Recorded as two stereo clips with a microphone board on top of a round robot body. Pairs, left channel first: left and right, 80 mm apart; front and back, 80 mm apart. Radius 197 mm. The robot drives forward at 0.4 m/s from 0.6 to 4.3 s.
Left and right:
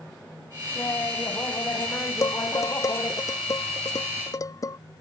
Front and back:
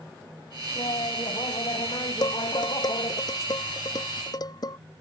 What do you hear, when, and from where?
0.8 s laughter: 30° left; by 3.2 s 35° left
2.2 s dishes clattering: 40° left